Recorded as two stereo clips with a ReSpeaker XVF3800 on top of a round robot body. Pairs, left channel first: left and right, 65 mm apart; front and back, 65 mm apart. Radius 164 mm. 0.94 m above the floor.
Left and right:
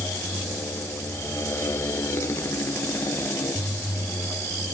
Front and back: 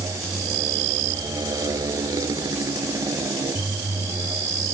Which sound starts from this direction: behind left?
A motorcycle, at 0.0 s.